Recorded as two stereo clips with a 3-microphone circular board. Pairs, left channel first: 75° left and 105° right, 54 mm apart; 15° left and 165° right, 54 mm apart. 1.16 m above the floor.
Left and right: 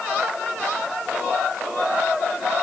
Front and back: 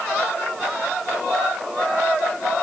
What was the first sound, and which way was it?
Only background noise.